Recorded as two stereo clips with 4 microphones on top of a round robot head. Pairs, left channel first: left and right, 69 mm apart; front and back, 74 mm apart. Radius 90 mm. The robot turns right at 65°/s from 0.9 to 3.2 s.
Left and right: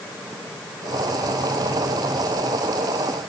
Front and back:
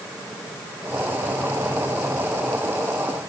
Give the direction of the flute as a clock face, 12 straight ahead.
I don't hear a flute.